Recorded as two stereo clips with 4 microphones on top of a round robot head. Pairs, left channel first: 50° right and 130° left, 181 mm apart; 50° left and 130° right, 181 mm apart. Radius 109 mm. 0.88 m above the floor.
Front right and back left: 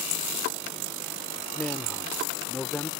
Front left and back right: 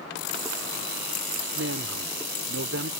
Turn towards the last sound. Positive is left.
turn(degrees=-135)